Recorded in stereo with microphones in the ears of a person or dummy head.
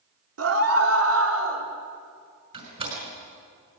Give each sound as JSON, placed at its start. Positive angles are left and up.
{"t": 0.4, "sound": "a scream", "side_deg": -85, "distance_m": 3.0}
{"t": 2.5, "sound": "a door slam", "side_deg": -40, "distance_m": 5.5}